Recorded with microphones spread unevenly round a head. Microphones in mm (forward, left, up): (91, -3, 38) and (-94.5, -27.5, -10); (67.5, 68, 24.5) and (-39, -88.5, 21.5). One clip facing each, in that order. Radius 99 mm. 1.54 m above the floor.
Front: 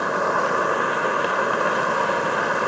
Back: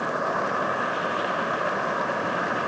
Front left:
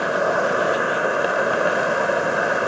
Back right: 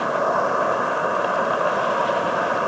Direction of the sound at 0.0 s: 10° right.